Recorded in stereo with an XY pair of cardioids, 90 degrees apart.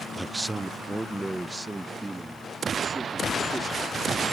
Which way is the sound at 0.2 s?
15° right.